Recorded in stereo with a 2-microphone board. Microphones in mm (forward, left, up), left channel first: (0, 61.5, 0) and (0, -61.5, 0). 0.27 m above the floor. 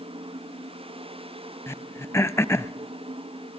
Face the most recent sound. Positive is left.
turn(degrees=20)  # may be behind; listen again after turning